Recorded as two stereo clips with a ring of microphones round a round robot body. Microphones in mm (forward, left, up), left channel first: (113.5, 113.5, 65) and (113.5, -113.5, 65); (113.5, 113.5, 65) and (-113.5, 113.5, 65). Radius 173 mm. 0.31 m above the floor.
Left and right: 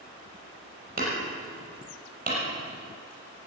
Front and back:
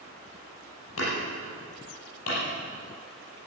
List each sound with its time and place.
1.0 s hammering: 40° right, 6.5 m